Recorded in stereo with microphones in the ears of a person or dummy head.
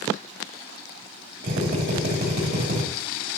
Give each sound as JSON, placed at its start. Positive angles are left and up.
{"t": 1.4, "sound": "a drill", "side_deg": -50, "distance_m": 3.0}